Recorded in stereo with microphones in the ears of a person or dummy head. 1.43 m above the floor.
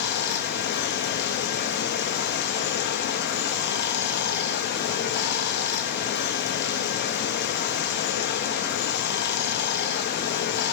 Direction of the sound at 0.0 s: 50° left (ahead or behind).